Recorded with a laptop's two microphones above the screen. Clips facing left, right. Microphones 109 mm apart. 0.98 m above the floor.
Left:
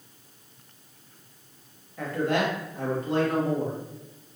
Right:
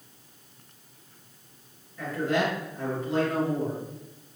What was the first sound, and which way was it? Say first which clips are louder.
A man speaking: left 1 dB; 65° left (ahead or behind).